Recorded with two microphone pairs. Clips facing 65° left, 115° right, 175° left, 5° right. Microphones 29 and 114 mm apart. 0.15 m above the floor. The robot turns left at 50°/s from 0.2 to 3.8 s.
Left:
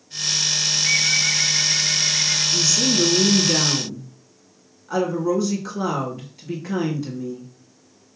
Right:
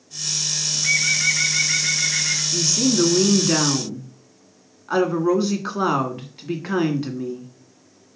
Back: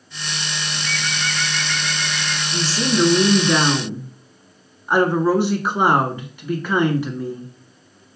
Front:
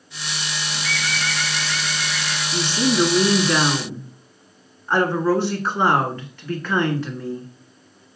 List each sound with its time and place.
0.7 s a bird: 25° right, 3 m; by 2.4 s 115° right, 3 m
2.5 s a woman speaking: 50° right, 1.4 m; by 7.5 s 115° right, 1.4 m